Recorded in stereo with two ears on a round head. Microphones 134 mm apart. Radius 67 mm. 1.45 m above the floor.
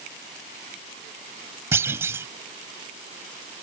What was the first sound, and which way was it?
A clunk, 15° right (ahead or behind).